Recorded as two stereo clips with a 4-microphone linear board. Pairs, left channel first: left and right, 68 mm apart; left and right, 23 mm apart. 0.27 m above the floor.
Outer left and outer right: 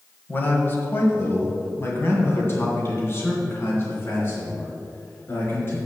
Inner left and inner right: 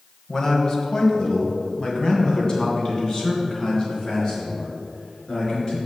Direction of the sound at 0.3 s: 30° left (ahead or behind).